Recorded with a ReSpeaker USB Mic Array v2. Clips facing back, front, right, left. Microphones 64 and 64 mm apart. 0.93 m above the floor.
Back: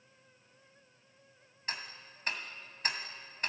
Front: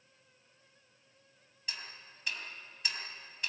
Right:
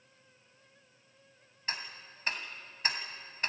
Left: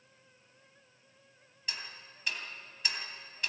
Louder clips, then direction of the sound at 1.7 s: Back 4 dB, right 3 dB; 140° right.